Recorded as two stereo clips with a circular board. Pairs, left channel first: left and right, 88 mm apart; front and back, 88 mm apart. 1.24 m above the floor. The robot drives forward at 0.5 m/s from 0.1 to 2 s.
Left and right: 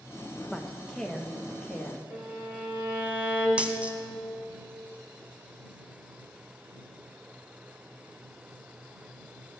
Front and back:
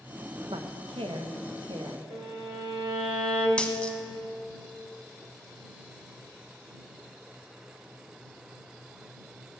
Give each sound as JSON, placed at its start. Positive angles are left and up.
{"t": 0.5, "sound": "a woman speaking", "azimuth_deg": 170, "distance_m": 1.0}
{"t": 2.1, "sound": "a violin", "azimuth_deg": -160, "distance_m": 2.5}
{"t": 3.6, "sound": "a dropped coin", "azimuth_deg": -45, "distance_m": 1.1}